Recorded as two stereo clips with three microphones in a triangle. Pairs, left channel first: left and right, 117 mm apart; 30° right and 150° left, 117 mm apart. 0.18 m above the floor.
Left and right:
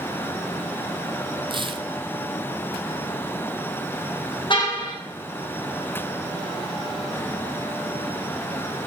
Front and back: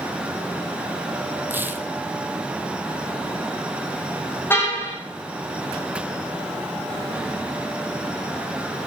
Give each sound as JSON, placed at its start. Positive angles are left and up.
{"t": 1.5, "sound": "tearing paper", "azimuth_deg": -135, "distance_m": 1.0}
{"t": 4.5, "sound": "a car horn", "azimuth_deg": 40, "distance_m": 4.5}